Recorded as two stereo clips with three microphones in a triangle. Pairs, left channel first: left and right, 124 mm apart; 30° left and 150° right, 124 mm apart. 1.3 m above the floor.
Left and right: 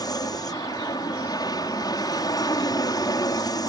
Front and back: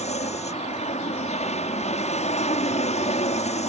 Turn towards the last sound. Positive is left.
turn(degrees=35)